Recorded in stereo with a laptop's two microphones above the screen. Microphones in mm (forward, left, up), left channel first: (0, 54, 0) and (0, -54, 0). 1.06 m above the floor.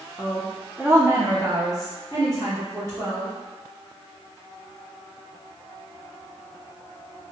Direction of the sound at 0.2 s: Centre (ahead or behind).